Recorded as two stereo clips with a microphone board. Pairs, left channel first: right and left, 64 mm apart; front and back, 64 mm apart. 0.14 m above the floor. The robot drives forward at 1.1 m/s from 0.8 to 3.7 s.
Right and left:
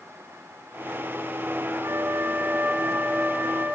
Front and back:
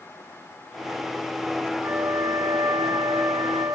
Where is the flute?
130° left, 0.9 m; by 3.7 s 165° left, 2.5 m.